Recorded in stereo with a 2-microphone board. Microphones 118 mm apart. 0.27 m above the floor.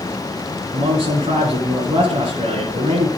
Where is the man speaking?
60° right (ahead or behind), 3 m.